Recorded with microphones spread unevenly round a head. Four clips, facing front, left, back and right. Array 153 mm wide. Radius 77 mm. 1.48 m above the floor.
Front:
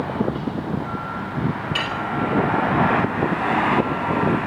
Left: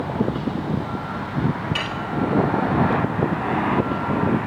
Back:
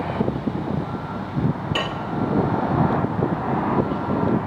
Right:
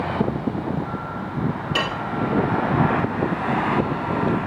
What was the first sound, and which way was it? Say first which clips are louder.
Dishes clattering: right 3 dB, even; 135° right.